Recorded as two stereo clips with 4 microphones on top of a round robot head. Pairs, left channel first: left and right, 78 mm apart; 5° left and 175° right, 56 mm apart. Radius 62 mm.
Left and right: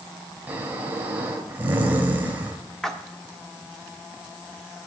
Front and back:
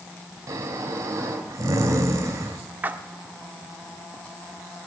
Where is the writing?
No writing in this recording.